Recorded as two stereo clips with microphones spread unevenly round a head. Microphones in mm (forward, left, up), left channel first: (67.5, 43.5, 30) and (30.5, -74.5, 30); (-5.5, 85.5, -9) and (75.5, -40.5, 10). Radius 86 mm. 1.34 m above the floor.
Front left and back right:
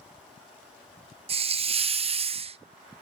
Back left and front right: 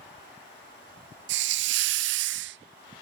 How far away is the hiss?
About 0.5 m.